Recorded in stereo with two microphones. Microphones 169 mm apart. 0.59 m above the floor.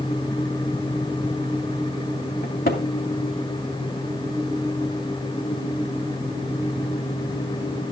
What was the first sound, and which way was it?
A cupboard door, 60° left (ahead or behind).